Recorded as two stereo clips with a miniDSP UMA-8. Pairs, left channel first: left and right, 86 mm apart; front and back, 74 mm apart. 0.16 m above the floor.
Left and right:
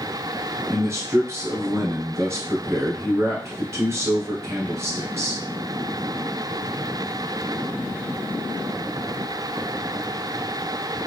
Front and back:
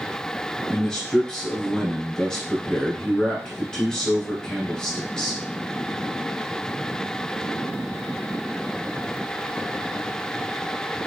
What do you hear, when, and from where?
0.7 s a man speaking: 70° right, 1.4 m